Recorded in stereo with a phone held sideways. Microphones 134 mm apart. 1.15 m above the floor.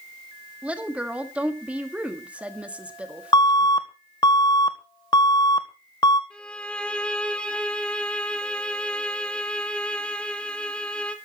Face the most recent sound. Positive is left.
turn(degrees=10)  # may be behind; listen again after turning